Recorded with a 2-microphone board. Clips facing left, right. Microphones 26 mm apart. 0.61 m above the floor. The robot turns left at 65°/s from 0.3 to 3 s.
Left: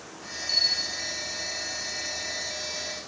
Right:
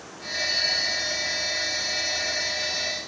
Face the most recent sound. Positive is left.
turn(degrees=-160)